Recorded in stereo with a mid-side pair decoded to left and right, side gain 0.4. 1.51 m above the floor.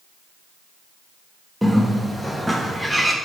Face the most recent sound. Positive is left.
turn(degrees=-5)